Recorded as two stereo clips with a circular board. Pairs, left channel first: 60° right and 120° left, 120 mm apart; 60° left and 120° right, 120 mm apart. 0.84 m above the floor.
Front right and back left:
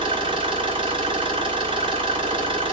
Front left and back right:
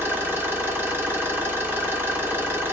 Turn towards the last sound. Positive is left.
turn(degrees=165)